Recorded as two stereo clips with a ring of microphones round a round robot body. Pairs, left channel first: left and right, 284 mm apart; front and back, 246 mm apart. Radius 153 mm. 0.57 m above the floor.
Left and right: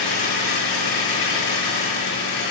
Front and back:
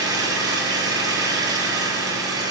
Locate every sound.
0.0 s an engine running: 105° left, 6 m